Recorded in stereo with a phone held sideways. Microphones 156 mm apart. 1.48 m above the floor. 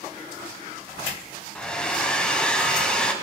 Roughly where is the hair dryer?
Centre.